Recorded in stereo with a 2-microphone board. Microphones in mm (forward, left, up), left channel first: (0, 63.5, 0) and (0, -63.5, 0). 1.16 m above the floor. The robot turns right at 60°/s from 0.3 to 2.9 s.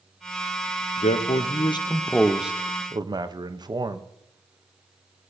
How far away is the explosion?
I don't hear an explosion.